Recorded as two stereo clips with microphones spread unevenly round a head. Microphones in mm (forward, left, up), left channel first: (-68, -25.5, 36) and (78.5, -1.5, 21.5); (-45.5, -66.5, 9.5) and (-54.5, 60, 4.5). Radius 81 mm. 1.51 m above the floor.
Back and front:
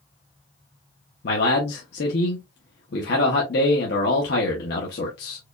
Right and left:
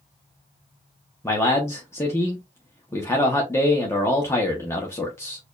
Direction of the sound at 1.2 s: 155° right.